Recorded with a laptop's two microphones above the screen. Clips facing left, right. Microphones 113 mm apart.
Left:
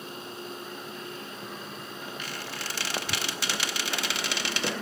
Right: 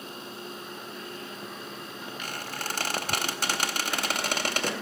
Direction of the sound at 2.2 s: 50° right (ahead or behind).